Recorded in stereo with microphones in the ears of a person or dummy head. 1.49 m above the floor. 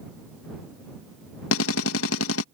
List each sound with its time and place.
1.5 s a drill: 80° left